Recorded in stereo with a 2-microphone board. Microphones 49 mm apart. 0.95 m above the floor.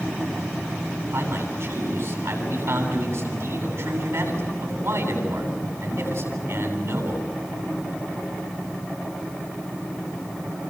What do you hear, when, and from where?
1.1 s a man speaking: 65° right (ahead or behind), 9 m